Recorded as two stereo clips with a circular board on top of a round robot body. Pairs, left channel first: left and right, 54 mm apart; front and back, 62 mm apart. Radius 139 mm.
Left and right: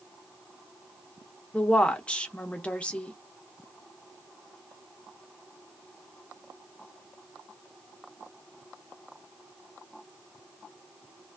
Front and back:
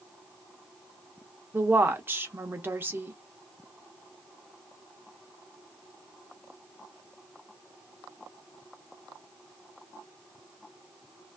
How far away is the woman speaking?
About 0.7 m.